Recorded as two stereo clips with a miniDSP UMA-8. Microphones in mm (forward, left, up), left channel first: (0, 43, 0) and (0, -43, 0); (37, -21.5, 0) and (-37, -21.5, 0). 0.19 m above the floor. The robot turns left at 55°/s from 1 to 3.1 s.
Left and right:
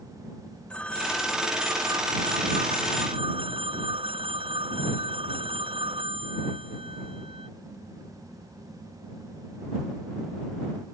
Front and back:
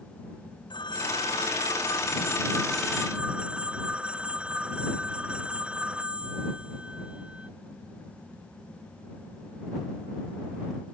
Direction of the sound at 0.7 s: 10° left.